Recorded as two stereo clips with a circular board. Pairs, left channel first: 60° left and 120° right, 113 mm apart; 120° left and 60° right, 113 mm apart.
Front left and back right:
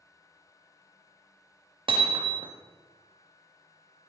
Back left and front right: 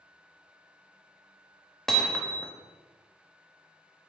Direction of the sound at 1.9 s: 155° right.